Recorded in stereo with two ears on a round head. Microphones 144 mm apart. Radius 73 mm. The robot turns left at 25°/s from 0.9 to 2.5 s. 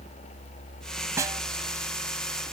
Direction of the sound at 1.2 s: 20° right (ahead or behind).